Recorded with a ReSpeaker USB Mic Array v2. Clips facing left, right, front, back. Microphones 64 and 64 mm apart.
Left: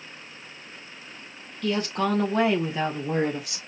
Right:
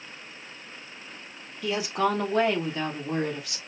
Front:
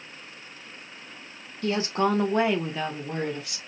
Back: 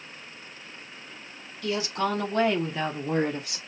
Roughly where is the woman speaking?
Ahead.